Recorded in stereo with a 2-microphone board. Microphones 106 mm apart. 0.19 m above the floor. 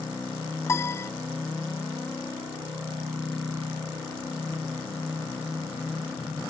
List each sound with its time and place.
0.7 s a piano: 30° left (ahead or behind)